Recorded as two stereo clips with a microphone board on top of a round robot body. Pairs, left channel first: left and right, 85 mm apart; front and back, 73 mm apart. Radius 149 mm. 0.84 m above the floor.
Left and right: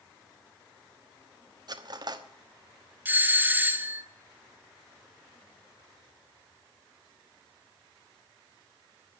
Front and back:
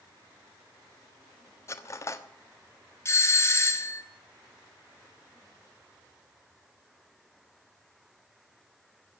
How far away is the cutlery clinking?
About 1.2 m.